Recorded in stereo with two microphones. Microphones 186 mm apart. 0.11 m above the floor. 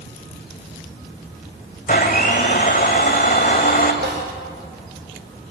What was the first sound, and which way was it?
A blender, 50° left (ahead or behind).